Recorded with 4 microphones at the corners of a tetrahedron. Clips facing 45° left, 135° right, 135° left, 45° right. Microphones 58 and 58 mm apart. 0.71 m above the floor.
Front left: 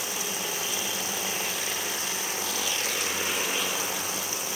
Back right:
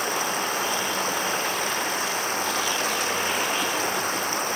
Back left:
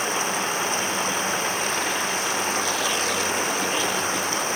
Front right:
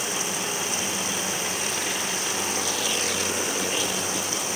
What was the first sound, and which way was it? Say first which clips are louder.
Running water: back right 8 dB, back left 5 dB; 175° right.